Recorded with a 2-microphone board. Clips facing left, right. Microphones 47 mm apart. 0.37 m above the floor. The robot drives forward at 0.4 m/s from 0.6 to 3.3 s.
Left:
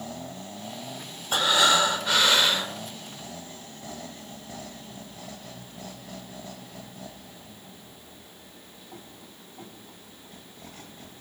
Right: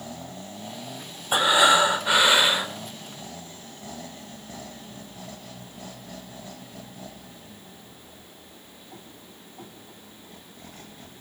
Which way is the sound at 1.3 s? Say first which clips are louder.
Right 3 dB; 20° right (ahead or behind).